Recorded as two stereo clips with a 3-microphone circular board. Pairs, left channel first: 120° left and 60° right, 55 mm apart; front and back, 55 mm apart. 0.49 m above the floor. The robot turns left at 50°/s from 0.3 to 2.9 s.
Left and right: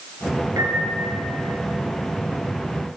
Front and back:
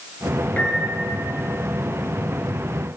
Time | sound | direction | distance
0.6 | a piano | 65° right | 2.5 m